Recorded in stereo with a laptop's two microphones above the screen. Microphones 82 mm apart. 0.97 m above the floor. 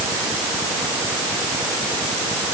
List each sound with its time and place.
Only background noise.